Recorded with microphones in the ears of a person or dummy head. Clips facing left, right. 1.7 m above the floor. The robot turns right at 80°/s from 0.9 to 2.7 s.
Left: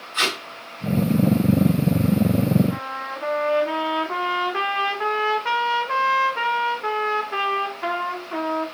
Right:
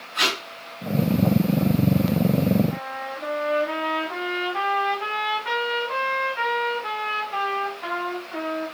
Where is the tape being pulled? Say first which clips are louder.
Even; 55° left (ahead or behind), 3 m.